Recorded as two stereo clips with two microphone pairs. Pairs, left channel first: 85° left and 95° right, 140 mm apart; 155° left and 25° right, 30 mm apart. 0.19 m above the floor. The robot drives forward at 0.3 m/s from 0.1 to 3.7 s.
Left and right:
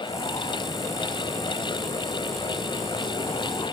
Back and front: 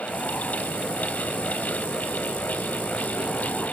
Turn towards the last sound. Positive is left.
No sound to turn to.